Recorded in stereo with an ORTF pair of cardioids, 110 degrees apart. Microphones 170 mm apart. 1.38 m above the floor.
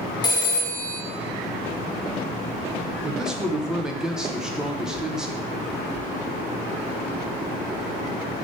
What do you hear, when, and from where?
0.2 s a phone ringing: 25° left, 1.3 m
3.0 s a man speaking: 5° right, 1.1 m